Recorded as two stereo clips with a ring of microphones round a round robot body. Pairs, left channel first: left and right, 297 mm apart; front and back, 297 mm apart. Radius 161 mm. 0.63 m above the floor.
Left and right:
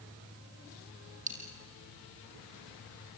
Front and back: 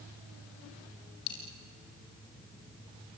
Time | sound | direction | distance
1.3 | a dropped coin | 25° right | 4 m